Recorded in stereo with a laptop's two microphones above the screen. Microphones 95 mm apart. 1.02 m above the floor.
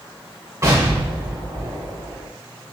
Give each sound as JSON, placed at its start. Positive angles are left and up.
{"t": 0.6, "sound": "an explosion", "side_deg": -30, "distance_m": 1.6}